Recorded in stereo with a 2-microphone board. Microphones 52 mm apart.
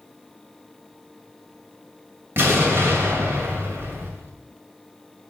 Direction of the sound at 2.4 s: 45° right (ahead or behind).